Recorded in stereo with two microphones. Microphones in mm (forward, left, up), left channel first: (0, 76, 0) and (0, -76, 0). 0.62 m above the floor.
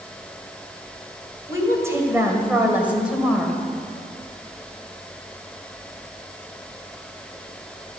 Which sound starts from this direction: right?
A woman speaking, at 1.5 s.